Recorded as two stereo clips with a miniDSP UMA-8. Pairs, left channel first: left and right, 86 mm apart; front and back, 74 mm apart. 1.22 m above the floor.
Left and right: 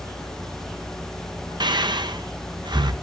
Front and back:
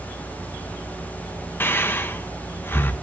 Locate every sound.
1.6 s breathing: 60° right, 0.5 m